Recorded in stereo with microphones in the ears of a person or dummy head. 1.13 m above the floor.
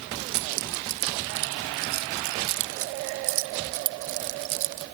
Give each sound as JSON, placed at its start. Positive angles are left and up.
{"t": 0.3, "sound": "keys jangling", "side_deg": -60}